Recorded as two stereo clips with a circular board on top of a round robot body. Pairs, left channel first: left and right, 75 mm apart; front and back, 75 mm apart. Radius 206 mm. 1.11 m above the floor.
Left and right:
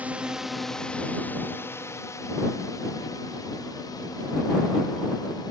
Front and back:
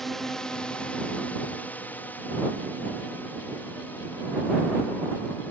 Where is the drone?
80° right; by 5.5 s 65° left.